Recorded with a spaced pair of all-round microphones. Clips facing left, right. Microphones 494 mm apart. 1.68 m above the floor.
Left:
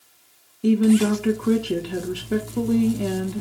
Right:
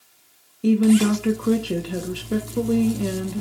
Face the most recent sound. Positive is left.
turn(degrees=5)  # may be behind; listen again after turning